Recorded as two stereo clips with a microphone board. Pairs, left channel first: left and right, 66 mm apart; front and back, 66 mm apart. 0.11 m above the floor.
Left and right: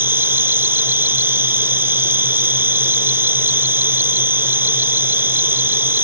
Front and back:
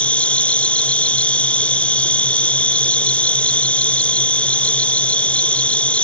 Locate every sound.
0.0 s an insect: 60° right